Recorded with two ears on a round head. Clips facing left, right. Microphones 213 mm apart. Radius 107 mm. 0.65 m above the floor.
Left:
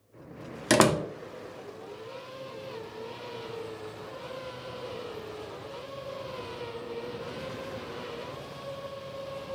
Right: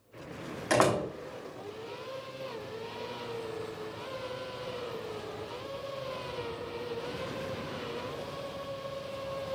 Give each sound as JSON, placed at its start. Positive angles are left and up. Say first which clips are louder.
{"t": 0.7, "sound": "a door slam", "louder": "left 4 dB", "side_deg": 50, "distance_m": 0.8}